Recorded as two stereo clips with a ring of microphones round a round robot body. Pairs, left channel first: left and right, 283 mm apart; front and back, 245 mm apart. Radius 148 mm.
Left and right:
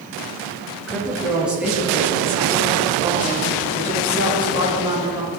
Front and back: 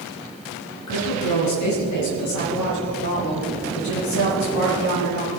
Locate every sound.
0.9 s a woman speaking: straight ahead, 5 m; by 5.3 s 20° right, 9.5 m